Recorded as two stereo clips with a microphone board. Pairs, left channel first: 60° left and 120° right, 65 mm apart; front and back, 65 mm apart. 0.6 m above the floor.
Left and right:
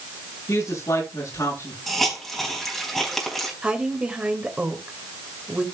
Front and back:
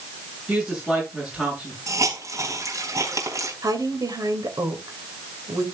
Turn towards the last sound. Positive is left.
turn(degrees=165)